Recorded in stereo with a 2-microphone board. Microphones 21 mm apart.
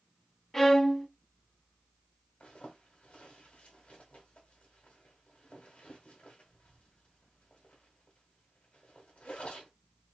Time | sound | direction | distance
0.5 | a violin | 20° left (ahead or behind) | 0.8 m
2.4 | a zipper | 60° left (ahead or behind) | 2 m